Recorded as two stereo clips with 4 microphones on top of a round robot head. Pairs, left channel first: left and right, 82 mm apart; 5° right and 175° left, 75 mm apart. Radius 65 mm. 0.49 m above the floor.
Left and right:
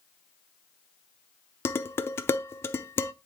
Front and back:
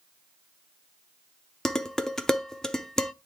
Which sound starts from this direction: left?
Dishes clattering, at 1.6 s.